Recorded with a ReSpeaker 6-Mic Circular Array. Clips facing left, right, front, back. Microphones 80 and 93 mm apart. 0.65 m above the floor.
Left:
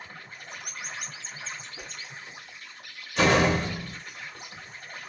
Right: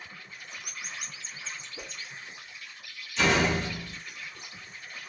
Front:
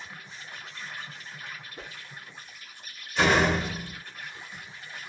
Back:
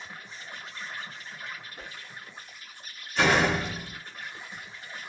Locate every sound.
0.0 s an insect: 125° left, 1.2 m
1.8 s a whoosh: 40° right, 0.6 m
3.2 s a door slam: 90° left, 0.9 m